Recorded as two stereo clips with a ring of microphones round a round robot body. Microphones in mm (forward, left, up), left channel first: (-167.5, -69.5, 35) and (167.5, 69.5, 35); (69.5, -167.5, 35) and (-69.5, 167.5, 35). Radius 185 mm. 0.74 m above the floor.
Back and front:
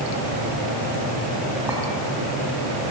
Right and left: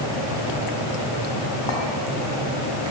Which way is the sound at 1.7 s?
60° right.